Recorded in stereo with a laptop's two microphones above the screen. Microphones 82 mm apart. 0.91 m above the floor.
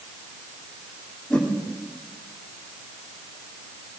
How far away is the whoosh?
About 2.5 m.